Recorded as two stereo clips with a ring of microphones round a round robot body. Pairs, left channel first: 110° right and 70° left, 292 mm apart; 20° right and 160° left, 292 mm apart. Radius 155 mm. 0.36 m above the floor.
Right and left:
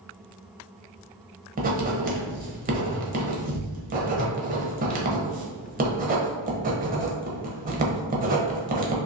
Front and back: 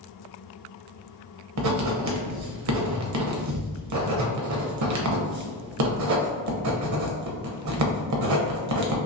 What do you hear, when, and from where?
1.6 s writing: 130° left, 0.8 m